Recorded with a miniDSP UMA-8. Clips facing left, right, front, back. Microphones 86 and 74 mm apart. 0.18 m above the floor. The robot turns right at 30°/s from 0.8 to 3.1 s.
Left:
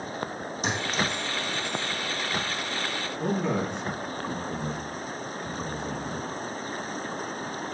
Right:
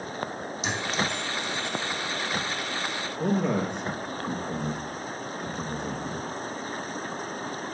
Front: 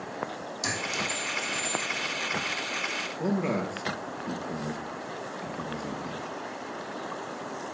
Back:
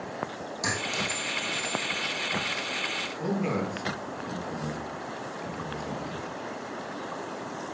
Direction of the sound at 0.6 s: 130° left.